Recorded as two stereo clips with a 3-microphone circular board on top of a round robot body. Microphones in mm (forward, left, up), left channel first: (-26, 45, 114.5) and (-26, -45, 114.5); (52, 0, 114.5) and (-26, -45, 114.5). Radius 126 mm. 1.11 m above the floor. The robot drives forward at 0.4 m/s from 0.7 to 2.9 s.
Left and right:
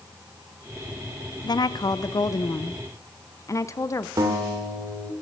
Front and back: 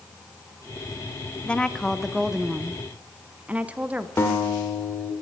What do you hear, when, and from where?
1.4 s a woman speaking: 105° left, 0.9 m; by 4.1 s 135° left, 1.2 m
4.2 s a guitar: 35° right, 2 m